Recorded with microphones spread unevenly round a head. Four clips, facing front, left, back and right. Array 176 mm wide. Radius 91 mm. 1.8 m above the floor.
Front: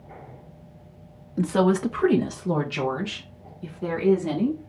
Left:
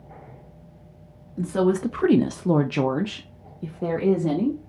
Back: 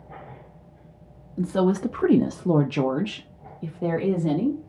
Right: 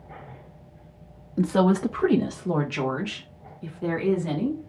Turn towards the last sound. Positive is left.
turn(degrees=135)